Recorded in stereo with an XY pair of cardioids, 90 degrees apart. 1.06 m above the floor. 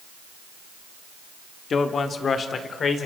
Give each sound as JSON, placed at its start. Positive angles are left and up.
{"t": 1.7, "sound": "a man speaking", "azimuth_deg": 50, "distance_m": 2.0}